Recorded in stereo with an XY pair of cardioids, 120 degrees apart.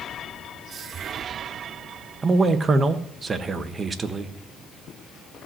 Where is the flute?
I don't hear a flute.